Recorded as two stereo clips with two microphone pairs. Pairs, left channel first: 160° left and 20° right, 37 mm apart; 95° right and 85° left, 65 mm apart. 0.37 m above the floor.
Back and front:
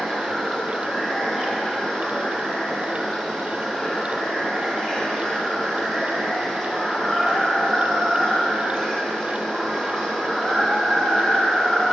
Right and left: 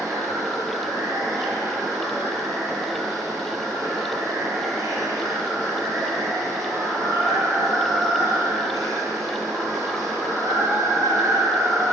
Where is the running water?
85° left, 1.9 m.